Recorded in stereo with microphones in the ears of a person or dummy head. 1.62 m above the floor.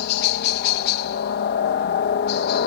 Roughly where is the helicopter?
Left.